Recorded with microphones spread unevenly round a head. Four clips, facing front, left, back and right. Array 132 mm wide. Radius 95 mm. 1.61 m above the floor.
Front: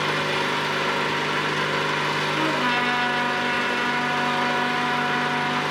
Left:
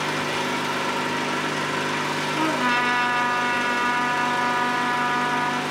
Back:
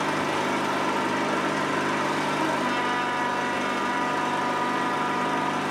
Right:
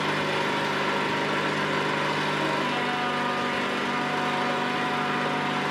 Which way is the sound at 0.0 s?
165° right.